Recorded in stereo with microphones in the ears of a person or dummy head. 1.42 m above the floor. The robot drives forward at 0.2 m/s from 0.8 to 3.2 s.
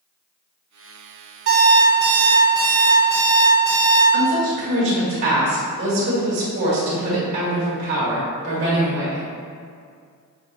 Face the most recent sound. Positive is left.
turn(degrees=-60)  # may be behind; listen again after turning